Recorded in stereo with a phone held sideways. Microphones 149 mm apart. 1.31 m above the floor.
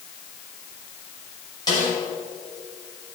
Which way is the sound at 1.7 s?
25° left (ahead or behind).